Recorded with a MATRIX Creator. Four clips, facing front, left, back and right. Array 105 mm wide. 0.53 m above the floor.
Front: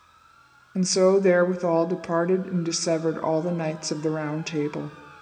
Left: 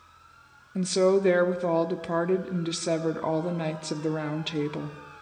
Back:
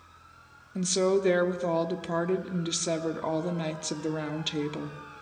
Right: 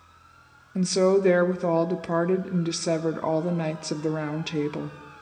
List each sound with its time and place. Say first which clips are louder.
0.8 s a woman speaking: right 1 dB, front 6 dB; 15° right, 0.7 m